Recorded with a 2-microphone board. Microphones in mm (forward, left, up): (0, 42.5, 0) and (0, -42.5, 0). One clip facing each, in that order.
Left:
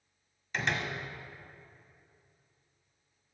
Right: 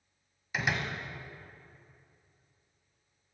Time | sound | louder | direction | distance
0.5 | a door slam | even | 10° right (ahead or behind) | 1.1 m